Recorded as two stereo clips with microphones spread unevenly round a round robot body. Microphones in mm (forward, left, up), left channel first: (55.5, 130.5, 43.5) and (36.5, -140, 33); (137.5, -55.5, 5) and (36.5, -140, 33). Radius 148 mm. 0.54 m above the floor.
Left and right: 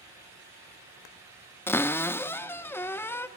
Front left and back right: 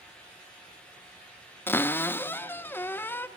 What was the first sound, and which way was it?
A cupboard door, 5° left.